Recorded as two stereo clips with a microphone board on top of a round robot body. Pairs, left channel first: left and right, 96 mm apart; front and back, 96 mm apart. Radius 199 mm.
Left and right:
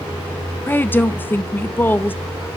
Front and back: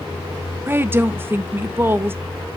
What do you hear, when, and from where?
0.7 s a woman speaking: 140° left, 0.8 m